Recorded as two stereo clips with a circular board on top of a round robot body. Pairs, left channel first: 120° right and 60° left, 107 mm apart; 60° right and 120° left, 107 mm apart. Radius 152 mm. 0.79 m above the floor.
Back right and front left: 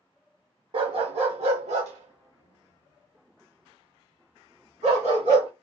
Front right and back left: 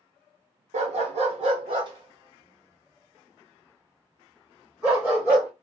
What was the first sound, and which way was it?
A dog barking, 105° left.